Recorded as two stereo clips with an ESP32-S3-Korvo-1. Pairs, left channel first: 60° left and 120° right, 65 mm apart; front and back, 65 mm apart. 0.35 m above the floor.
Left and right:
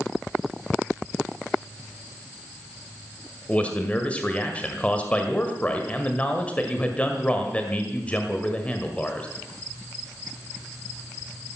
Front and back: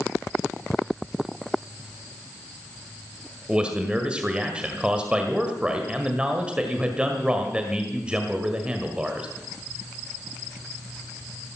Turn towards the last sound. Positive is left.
turn(degrees=115)